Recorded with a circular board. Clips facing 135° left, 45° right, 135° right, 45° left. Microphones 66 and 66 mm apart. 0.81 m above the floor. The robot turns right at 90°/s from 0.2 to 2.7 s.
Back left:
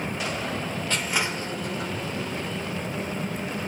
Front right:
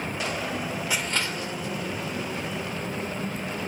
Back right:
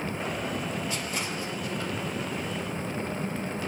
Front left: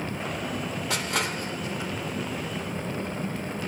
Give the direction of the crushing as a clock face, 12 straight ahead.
11 o'clock.